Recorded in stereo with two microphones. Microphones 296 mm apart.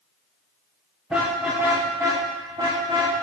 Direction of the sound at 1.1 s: Centre (ahead or behind).